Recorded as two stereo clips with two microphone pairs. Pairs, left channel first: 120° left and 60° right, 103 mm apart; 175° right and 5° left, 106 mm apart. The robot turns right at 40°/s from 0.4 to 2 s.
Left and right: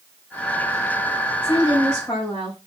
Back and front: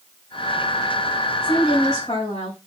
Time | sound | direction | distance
1.4 | a woman speaking | 140° left | 3 m